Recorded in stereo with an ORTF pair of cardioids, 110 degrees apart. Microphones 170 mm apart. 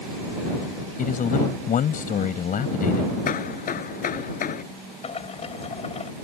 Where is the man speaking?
50° left.